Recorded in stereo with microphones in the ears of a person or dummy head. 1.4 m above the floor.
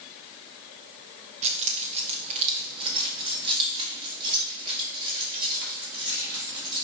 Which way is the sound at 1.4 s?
35° right (ahead or behind).